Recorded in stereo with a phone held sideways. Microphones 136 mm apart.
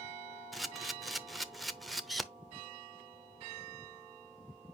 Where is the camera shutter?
Centre (ahead or behind), 0.7 m.